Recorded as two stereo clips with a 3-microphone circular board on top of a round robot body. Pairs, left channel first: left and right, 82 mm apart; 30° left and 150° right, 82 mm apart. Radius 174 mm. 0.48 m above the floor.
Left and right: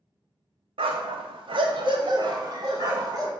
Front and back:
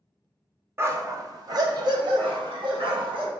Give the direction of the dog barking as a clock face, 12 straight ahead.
3 o'clock.